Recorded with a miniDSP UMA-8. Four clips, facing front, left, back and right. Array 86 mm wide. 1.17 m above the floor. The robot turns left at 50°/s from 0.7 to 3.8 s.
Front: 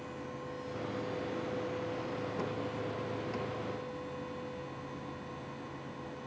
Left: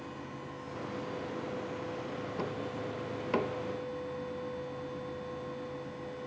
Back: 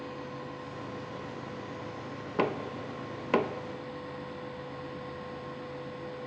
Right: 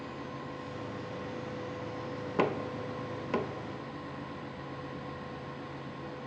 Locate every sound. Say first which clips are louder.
2.4 s knocking: right 9 dB, back 5 dB; 135° right; by 3.6 s 165° left